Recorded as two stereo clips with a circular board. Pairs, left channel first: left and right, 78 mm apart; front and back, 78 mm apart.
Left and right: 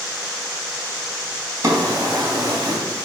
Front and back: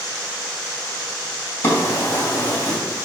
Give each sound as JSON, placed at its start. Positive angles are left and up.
{"t": 1.6, "sound": "a drawer", "azimuth_deg": -50, "distance_m": 2.5}